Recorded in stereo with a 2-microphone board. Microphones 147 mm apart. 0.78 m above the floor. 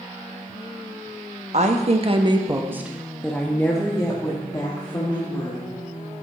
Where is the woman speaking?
50° right (ahead or behind), 0.8 m; by 5.7 s 30° left (ahead or behind), 1.9 m.